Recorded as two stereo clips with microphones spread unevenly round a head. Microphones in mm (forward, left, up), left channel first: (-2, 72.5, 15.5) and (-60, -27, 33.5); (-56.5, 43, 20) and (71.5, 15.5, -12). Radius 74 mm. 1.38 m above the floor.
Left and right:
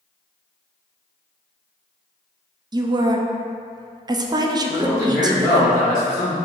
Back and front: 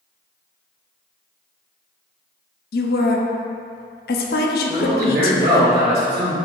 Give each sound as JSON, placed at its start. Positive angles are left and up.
{"t": 2.7, "sound": "a woman speaking", "azimuth_deg": 180, "distance_m": 0.5}
{"t": 4.7, "sound": "a man speaking", "azimuth_deg": -25, "distance_m": 1.8}